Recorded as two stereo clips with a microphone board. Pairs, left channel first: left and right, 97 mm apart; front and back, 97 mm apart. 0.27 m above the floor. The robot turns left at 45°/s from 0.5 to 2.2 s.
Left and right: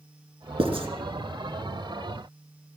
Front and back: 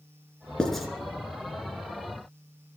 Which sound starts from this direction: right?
Writing, at 0.6 s.